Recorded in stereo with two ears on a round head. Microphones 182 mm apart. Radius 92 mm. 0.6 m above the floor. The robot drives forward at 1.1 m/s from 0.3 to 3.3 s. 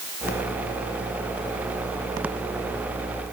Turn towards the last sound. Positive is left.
No sound to turn to.